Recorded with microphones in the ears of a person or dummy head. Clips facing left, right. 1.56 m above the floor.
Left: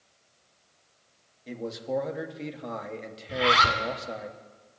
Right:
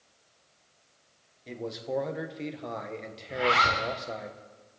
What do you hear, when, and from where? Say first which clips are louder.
1.5 s a man speaking: left 2 dB; centre (ahead or behind), 1.3 m
3.3 s a zipper: left 2 dB; 45° left (ahead or behind), 2.0 m